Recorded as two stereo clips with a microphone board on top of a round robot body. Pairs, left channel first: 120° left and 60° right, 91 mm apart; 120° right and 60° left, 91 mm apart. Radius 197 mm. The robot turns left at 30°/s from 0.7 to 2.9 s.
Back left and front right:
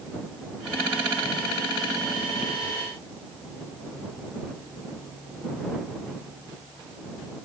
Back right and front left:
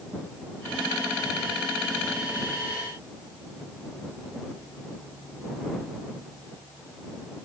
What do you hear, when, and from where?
Only background noise.